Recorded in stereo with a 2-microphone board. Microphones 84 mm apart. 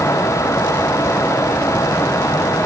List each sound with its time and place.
Only background noise.